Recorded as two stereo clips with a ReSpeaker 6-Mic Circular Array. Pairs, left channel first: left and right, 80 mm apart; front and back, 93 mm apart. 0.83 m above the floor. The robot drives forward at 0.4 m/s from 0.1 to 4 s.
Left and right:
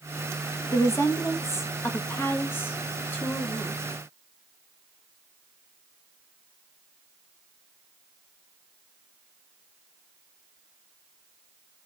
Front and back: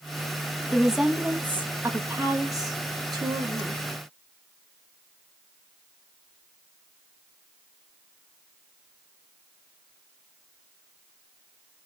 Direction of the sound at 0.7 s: 85° left.